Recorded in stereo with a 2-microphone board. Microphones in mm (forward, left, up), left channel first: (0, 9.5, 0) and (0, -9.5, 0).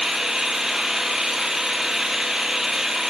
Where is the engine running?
30° right (ahead or behind), 3 m.